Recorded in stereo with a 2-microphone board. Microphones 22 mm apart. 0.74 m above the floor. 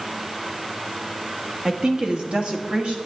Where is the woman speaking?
30° right (ahead or behind), 1.0 m; by 3.0 s 60° right (ahead or behind), 1.8 m.